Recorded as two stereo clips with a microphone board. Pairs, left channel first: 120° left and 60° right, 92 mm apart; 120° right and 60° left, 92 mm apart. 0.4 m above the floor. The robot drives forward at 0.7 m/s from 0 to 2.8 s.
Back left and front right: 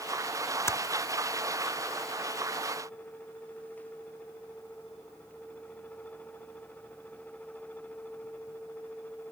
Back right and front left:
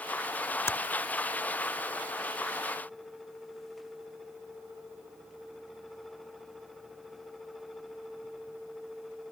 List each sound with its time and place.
0.7 s typing on a keyboard: straight behind